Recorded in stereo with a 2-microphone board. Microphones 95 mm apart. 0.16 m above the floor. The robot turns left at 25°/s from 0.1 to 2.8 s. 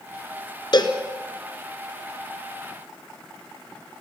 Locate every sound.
0.7 s a cowbell: 50° left (ahead or behind), 1.8 m; by 1.0 s 55° left (ahead or behind), 1.8 m